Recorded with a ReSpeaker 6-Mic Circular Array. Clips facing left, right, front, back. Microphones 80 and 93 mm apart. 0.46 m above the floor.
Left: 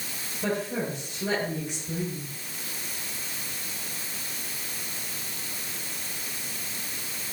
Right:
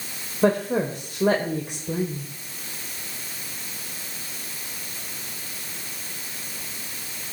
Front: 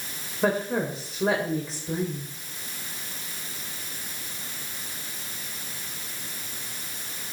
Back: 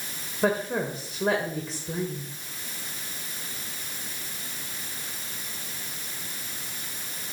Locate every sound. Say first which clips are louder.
0.4 s a woman speaking: right 8 dB, front 1 dB; 90° right, 1.8 m